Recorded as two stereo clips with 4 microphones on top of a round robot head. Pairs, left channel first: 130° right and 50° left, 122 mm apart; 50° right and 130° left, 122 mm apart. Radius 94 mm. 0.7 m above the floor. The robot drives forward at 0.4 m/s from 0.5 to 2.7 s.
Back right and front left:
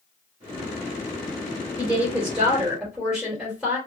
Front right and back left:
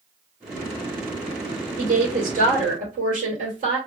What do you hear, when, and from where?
1.8 s a woman speaking: 130° left, 2.5 m; by 3.8 s 135° left, 3 m